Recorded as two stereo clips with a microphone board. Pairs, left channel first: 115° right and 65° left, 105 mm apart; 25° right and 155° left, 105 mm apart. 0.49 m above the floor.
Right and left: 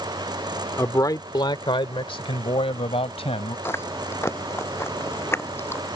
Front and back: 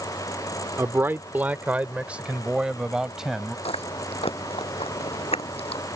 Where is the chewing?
45° right.